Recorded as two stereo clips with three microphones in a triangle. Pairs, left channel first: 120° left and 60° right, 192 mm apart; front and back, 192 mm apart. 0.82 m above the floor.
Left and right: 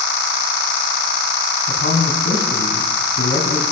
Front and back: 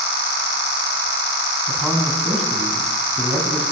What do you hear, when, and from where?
1.7 s a man speaking: 95° left, 7 m